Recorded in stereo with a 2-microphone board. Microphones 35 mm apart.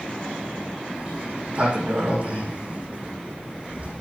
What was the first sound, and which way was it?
A sliding door, 35° right (ahead or behind).